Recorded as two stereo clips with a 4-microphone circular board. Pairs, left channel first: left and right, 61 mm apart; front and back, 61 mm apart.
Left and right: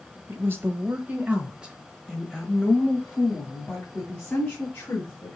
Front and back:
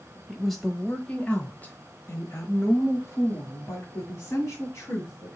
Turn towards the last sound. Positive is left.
turn(degrees=30)